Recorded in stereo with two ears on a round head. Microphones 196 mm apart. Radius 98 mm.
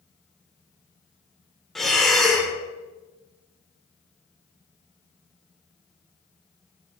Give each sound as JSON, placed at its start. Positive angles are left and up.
{"t": 1.8, "sound": "breathing", "side_deg": 0, "distance_m": 1.3}